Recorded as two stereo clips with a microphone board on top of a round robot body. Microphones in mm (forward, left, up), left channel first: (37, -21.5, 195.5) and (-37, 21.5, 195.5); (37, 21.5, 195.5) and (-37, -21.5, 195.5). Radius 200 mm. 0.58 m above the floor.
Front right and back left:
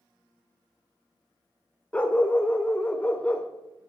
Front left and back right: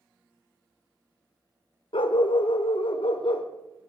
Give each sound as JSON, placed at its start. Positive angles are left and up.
{"t": 1.9, "sound": "a dog barking", "azimuth_deg": 45, "distance_m": 1.0}